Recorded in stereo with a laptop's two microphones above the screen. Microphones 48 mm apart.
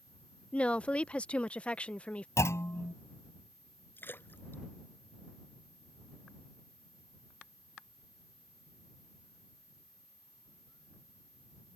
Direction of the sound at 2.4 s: 80° left.